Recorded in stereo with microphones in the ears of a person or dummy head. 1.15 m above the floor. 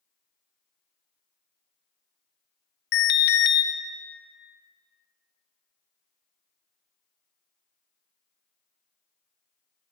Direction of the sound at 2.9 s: 55° left (ahead or behind).